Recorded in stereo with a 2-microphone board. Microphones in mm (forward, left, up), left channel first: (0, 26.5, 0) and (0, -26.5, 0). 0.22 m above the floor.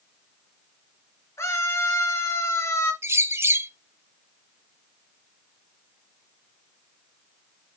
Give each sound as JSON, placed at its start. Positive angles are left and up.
{"t": 1.4, "sound": "a scream", "side_deg": 70, "distance_m": 4.5}
{"t": 3.0, "sound": "a bird", "side_deg": -55, "distance_m": 0.7}